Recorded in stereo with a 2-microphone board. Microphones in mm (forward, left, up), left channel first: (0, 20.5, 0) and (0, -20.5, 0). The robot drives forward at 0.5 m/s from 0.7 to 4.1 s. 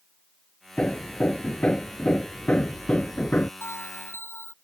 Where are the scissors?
No scissors in this recording.